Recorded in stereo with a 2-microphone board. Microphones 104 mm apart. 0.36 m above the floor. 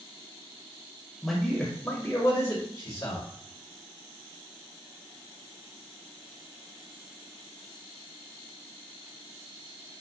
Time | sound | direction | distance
1.2 | a man speaking | centre (ahead or behind) | 1.2 m